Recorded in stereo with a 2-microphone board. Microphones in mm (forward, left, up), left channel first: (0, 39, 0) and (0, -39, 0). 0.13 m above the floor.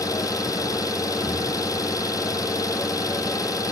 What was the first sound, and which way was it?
An engine running, 50° left (ahead or behind).